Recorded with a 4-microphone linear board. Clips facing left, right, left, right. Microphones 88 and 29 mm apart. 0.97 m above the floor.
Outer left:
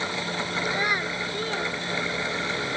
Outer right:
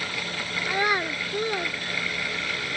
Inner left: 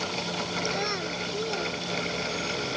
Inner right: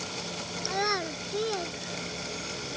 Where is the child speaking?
20° right (ahead or behind); by 2.6 s 15° right (ahead or behind).